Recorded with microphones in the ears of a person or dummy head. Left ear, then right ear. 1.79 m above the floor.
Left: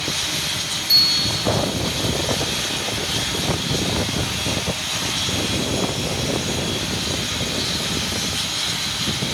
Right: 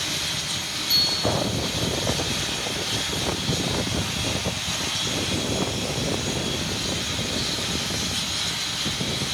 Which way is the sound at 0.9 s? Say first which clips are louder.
Left 5 dB; 85° left.